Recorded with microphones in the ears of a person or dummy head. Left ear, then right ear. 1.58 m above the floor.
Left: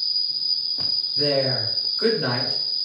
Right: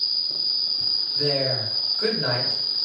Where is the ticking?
I don't hear ticking.